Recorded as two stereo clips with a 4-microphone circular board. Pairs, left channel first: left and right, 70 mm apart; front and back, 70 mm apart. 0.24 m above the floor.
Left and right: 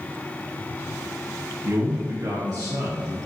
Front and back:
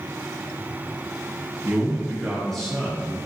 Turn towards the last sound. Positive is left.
turn(degrees=-70)